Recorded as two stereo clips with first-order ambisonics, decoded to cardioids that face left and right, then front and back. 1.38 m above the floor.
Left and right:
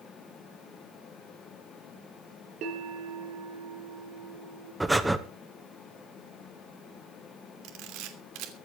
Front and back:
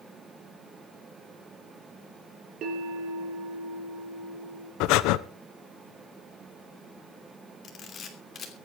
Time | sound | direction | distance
2.6 | a bell | 130° right | 4.5 m
4.8 | breathing | 5° right | 0.8 m
7.6 | a camera shutter | 60° right | 2.5 m